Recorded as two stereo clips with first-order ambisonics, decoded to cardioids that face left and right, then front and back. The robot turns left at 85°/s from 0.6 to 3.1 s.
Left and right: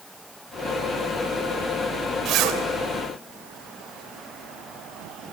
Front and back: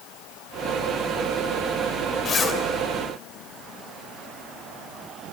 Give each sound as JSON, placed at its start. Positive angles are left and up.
{"t": 2.2, "sound": "a zipper", "azimuth_deg": -50, "distance_m": 2.5}